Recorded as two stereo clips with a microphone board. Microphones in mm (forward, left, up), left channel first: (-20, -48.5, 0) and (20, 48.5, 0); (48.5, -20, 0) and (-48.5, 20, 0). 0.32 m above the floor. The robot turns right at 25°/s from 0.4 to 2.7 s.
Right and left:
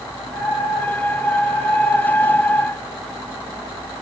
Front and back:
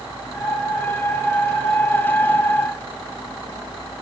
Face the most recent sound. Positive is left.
No sound to turn to.